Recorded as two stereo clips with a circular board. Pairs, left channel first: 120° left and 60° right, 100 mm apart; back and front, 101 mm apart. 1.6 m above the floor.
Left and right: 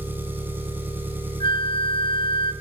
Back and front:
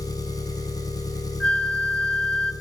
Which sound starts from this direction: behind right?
An engine running, at 0.0 s.